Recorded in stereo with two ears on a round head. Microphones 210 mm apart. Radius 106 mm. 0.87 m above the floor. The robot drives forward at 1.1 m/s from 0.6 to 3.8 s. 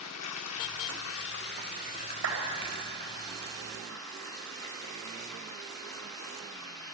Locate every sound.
0.0 s running water: 75° left (ahead or behind), 1.0 m; by 6.9 s 15° left (ahead or behind), 3.5 m
2.2 s a clap: 80° right, 4.5 m